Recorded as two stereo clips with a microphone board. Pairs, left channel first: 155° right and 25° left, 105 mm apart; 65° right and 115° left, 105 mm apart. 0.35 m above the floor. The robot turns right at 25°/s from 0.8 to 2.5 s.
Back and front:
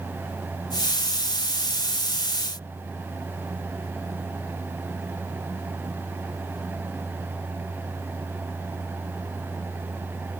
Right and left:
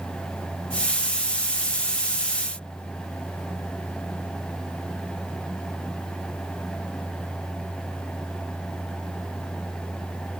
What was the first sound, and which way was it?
Only background noise.